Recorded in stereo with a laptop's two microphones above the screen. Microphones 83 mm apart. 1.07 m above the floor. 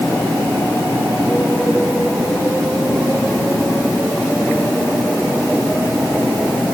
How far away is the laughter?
I don't hear laughter.